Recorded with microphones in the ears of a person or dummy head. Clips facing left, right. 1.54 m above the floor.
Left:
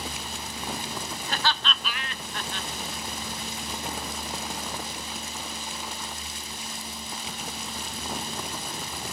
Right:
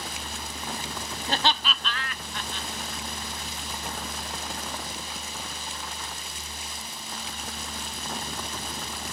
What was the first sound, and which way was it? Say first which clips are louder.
Laughter: right 3 dB; 35° right (ahead or behind).